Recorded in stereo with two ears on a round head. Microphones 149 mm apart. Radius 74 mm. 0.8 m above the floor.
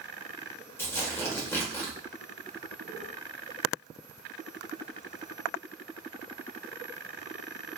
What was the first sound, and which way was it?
Tearing paper, 15° left (ahead or behind).